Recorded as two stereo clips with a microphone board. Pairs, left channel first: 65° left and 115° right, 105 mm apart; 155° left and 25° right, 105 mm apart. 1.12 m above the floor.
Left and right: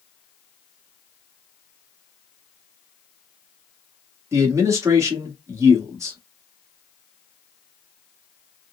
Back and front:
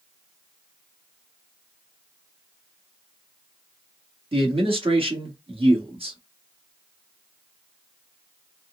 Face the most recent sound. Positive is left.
turn(degrees=-50)